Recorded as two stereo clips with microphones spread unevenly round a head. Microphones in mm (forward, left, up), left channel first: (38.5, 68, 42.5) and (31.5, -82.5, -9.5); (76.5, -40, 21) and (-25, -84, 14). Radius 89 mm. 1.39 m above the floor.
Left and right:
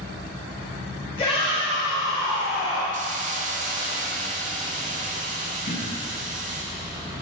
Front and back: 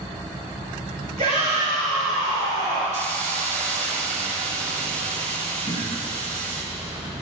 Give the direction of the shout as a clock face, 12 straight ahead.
7 o'clock.